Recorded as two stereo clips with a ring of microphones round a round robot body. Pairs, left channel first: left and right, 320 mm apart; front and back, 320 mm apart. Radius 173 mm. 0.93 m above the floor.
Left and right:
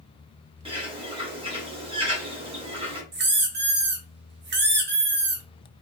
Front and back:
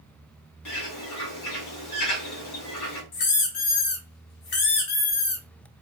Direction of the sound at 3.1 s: 30° right.